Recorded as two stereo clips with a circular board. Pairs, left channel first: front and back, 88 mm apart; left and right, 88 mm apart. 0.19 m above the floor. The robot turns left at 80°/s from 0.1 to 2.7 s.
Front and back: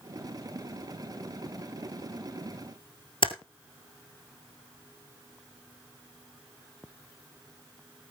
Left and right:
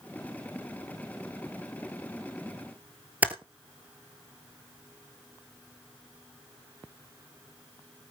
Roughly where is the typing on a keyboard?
Ahead.